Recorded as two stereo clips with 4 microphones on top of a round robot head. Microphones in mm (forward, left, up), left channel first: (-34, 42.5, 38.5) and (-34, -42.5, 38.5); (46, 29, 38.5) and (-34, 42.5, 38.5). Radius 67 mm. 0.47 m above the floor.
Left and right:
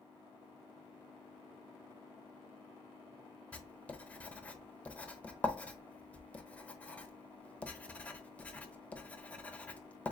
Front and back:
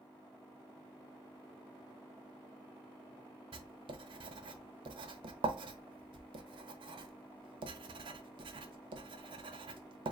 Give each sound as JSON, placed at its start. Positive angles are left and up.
{"t": 3.5, "sound": "writing", "azimuth_deg": 165, "distance_m": 0.8}